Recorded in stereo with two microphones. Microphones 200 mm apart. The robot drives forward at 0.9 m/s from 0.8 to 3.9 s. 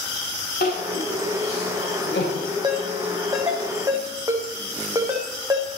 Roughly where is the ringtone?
Right.